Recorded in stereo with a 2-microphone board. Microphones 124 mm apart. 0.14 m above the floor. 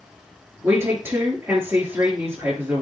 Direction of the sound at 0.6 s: 15° right (ahead or behind).